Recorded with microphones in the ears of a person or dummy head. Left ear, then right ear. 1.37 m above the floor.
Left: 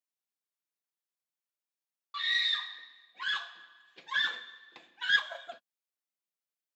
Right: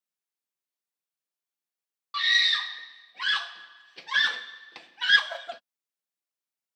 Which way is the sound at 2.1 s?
25° right (ahead or behind).